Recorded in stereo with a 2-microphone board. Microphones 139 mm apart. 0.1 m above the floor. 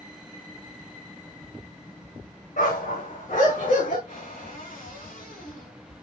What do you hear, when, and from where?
2.6 s a dog barking: 70° left (ahead or behind), 4.5 m
4.1 s a cupboard door: 80° left, 4.5 m